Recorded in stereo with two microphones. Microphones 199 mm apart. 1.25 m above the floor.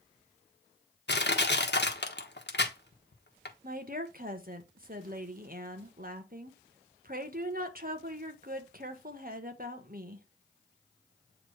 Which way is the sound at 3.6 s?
45° right (ahead or behind).